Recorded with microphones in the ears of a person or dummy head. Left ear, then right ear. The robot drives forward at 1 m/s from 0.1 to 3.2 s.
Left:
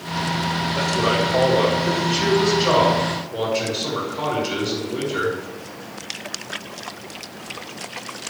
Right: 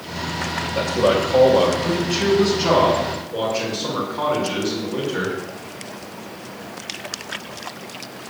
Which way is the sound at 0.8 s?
70° right (ahead or behind).